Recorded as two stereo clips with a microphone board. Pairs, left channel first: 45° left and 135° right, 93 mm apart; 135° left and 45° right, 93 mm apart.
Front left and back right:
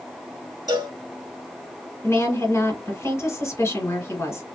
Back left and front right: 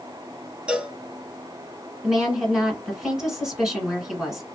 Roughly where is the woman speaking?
Ahead left.